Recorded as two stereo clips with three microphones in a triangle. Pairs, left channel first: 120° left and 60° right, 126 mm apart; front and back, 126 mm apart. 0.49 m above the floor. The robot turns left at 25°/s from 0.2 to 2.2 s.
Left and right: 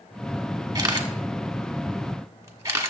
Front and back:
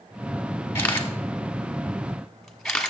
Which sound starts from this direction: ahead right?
A camera shutter, at 0.8 s.